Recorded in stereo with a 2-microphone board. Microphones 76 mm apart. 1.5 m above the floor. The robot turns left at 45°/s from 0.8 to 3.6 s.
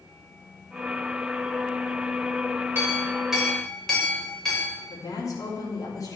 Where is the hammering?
No hammering in this recording.